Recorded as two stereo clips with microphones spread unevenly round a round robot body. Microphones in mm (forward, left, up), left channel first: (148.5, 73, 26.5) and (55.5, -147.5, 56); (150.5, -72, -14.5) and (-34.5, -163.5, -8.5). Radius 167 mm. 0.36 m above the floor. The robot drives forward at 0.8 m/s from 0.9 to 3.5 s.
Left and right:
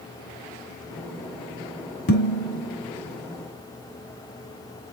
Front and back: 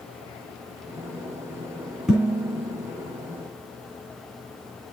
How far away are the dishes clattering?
About 1.9 m.